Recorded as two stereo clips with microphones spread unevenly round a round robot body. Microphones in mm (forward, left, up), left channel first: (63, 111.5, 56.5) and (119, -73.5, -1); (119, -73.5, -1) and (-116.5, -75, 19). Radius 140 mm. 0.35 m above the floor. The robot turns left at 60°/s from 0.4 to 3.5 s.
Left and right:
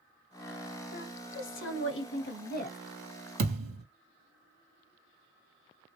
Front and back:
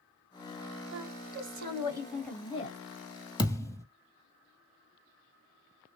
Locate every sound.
0.9 s a woman speaking: 165° left, 1.7 m; by 2.8 s 50° left, 1.7 m
3.4 s a thud: 70° right, 1.6 m; by 3.9 s 75° right, 1.6 m